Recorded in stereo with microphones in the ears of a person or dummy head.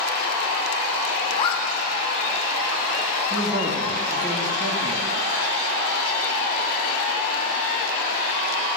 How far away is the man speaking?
About 2 m.